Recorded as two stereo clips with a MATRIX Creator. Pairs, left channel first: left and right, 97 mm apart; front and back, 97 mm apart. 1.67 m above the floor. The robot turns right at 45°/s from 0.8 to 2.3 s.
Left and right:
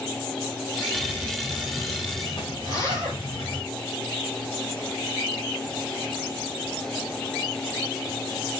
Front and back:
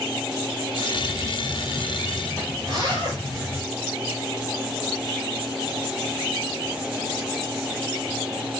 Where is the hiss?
10° left, 4 m; by 3.6 s 70° left, 4 m.